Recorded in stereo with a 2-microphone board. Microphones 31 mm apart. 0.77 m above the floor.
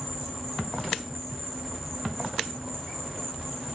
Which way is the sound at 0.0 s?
Centre (ahead or behind).